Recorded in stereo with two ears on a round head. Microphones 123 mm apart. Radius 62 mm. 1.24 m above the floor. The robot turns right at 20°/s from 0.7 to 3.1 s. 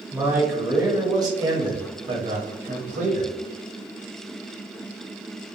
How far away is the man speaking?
About 0.8 m.